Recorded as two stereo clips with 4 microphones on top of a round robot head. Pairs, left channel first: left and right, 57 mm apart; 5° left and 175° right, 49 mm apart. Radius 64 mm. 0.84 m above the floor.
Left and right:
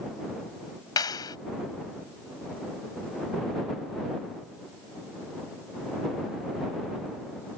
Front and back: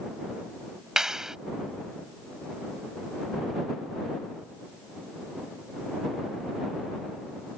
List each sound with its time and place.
1.0 s a clap: 110° left